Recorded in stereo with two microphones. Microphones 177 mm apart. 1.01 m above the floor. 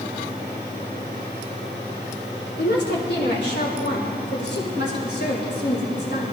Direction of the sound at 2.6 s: 80° left.